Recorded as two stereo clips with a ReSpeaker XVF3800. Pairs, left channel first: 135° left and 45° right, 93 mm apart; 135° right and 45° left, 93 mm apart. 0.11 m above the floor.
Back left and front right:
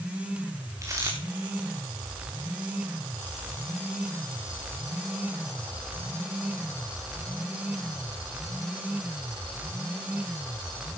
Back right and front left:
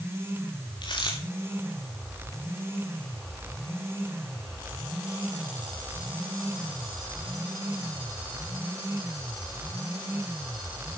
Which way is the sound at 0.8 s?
100° right.